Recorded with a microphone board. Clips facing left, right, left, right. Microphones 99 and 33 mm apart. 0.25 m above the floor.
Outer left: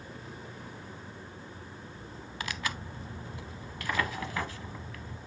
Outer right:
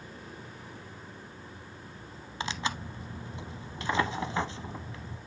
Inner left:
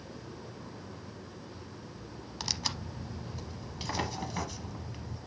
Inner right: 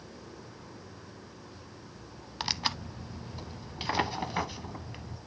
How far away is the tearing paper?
About 0.6 m.